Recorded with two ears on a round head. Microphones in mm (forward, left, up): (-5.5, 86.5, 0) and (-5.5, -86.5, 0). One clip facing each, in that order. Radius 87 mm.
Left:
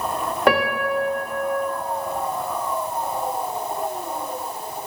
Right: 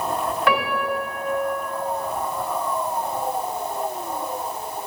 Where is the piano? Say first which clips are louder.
Left 5 dB; 35° left (ahead or behind), 0.9 m.